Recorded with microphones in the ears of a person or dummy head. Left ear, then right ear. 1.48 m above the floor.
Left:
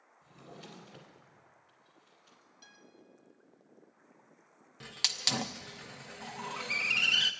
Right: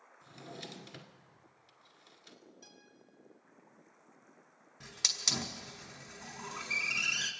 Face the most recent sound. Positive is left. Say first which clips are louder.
# left 1 dB
turn(degrees=35)  # may be behind; listen again after turning